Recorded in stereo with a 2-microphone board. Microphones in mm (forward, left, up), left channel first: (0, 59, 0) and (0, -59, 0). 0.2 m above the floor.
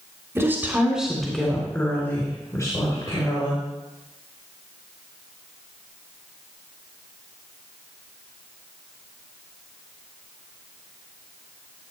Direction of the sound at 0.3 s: 25° right (ahead or behind).